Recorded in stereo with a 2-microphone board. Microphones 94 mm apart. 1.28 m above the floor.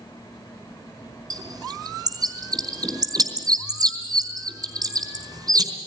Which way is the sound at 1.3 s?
45° right (ahead or behind).